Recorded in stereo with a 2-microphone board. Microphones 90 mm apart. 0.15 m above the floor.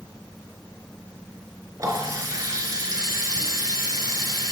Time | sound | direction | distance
1.8 | a running tap | 40° right (ahead or behind) | 1.3 m